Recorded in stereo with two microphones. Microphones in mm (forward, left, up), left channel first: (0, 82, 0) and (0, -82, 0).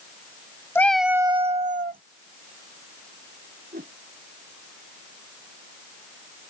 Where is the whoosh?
60° right (ahead or behind).